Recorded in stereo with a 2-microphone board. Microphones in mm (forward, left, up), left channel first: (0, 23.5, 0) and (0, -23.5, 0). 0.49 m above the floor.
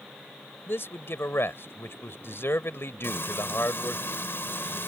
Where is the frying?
60° left (ahead or behind).